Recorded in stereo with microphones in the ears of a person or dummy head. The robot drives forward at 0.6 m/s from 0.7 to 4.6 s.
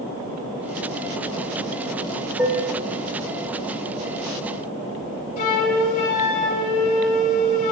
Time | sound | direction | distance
2.4 | dishes clattering | 10° right (ahead or behind) | 3 m
5.4 | a flute | 40° left (ahead or behind) | 4.5 m